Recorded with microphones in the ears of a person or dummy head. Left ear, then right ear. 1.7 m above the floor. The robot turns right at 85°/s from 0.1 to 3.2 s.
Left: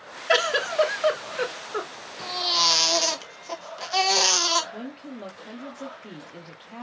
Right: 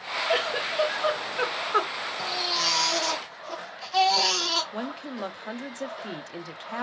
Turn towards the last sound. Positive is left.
turn(degrees=-50)  # may be behind; listen again after turning